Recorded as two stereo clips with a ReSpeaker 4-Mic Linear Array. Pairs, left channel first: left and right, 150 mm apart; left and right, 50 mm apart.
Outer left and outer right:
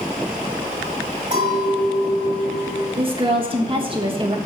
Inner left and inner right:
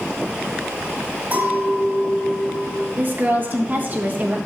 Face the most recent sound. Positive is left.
turn(degrees=-35)  # may be behind; listen again after turning